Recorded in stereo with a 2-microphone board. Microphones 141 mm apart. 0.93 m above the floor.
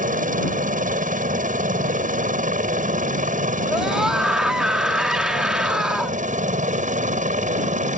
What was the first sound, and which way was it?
A helicopter, 70° right (ahead or behind).